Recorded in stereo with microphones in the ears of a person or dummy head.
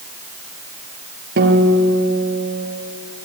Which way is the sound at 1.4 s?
65° right (ahead or behind).